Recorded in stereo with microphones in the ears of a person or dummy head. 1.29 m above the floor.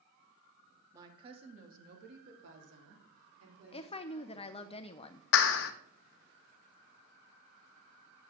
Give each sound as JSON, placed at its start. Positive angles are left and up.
{"t": 0.9, "sound": "a woman speaking", "side_deg": -15, "distance_m": 2.0}
{"t": 3.7, "sound": "a woman speaking", "side_deg": 20, "distance_m": 0.6}
{"t": 5.3, "sound": "a clap", "side_deg": 65, "distance_m": 0.9}